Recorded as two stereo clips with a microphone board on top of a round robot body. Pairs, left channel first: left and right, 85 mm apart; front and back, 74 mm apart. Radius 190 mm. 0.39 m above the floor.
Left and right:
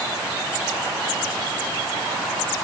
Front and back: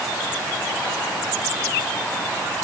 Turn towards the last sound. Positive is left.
No sound to turn to.